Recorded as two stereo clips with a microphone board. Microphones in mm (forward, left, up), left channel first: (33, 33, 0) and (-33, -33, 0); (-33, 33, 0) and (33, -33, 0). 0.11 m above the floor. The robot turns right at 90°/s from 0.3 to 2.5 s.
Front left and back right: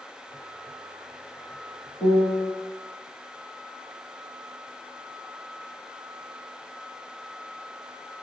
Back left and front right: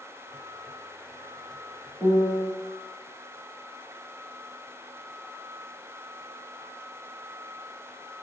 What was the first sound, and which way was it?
A piano, 40° left.